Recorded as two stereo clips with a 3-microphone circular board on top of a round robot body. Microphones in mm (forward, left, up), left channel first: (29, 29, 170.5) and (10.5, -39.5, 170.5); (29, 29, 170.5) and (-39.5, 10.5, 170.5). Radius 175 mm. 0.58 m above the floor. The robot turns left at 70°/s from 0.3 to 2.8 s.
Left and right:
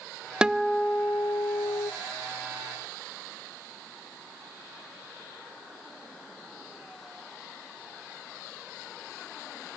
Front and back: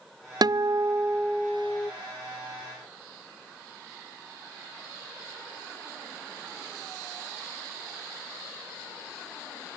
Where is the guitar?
175° left, 0.5 m; by 1.9 s 70° left, 0.5 m.